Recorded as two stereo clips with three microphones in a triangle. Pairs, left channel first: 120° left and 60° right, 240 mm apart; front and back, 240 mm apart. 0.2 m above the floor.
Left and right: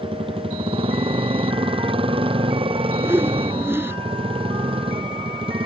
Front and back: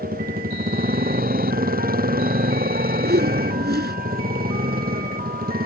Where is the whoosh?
140° right.